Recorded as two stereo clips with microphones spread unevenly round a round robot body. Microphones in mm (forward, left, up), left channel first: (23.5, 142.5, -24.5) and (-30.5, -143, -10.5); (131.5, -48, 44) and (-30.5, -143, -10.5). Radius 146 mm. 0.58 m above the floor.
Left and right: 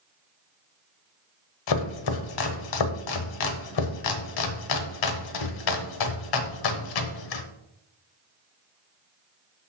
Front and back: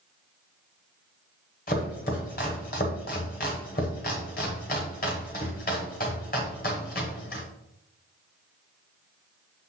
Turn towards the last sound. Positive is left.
turn(degrees=90)